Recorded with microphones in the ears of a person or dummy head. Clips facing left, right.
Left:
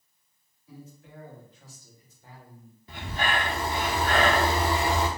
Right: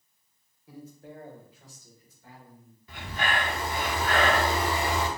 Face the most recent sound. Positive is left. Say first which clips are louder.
# left 1 dB
turn(degrees=25)  # may be behind; listen again after turning